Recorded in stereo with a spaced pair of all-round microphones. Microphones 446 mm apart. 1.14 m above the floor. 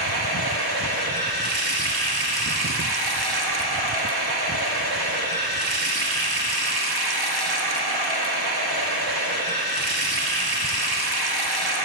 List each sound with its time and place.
0.0 s running water: 55° right (ahead or behind), 0.9 m